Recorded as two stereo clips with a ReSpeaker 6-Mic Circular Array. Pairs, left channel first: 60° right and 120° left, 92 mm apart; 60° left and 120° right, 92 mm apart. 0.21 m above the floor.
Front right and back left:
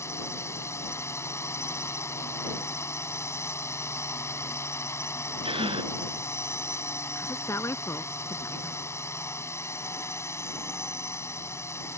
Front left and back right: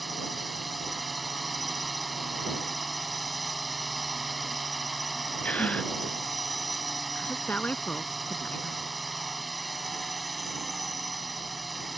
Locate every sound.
0.0 s a drone: 30° right
5.4 s a gasp: 135° left
7.2 s a woman speaking: 10° right